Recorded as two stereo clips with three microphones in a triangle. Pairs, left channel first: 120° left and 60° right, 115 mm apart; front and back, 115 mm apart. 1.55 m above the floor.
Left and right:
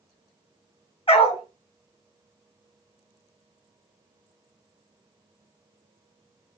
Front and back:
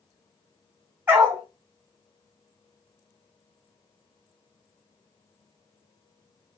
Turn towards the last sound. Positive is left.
turn(degrees=115)